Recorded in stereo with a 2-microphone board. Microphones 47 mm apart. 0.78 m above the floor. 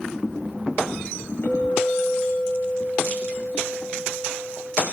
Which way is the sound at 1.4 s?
55° left (ahead or behind).